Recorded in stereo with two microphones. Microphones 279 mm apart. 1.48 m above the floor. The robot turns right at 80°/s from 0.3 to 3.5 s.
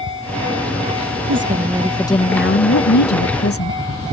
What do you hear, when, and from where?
1.3 s a woman speaking: 50° right; by 3.8 s 125° left